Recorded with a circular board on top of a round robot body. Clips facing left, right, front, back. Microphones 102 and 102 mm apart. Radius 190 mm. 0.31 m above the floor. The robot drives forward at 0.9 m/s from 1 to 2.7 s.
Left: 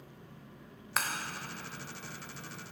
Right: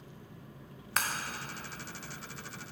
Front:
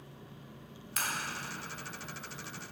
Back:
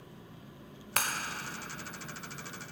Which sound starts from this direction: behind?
Breaking glass, at 1.0 s.